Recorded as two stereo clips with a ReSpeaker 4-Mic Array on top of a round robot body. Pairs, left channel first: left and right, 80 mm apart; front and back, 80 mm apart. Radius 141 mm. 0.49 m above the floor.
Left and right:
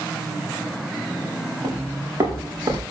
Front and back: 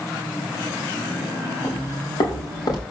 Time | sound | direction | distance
1.6 | footsteps | 40° right | 6.5 m